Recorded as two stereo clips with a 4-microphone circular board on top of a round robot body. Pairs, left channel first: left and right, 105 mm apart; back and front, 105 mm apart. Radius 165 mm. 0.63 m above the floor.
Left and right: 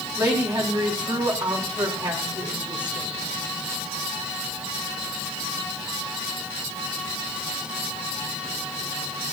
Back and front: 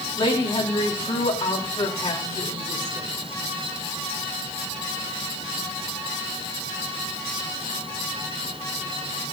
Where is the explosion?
I don't hear an explosion.